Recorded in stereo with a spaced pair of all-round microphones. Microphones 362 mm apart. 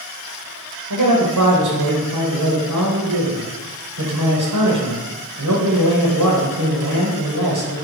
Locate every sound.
0.9 s a man speaking: 55° right (ahead or behind), 0.8 m